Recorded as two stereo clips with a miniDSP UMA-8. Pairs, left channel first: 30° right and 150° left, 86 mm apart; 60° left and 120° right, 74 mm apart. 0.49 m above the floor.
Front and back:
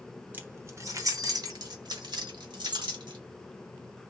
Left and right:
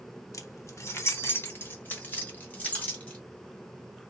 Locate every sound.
0.3 s keys jangling: 90° left, 0.7 m; by 3.2 s 130° left, 1.9 m